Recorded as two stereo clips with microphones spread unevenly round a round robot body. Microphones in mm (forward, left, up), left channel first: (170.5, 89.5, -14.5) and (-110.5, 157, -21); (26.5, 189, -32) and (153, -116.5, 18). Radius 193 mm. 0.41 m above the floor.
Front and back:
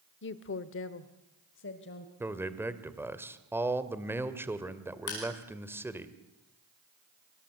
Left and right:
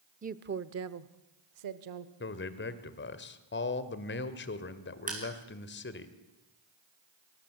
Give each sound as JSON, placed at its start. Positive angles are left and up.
{"t": 0.2, "sound": "a woman speaking", "azimuth_deg": 0, "distance_m": 0.9}
{"t": 2.2, "sound": "a man speaking", "azimuth_deg": 90, "distance_m": 1.8}
{"t": 5.1, "sound": "crushing", "azimuth_deg": 0, "distance_m": 7.0}